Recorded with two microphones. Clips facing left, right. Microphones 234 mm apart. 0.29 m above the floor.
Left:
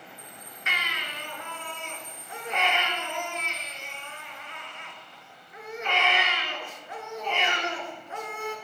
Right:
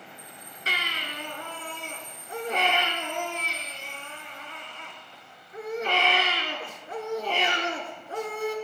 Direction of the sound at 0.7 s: 40° right (ahead or behind).